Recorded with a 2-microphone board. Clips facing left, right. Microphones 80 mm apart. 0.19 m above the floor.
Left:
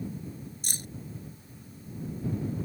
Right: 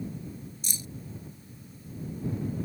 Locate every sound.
0.6 s keys jangling: 55° left (ahead or behind)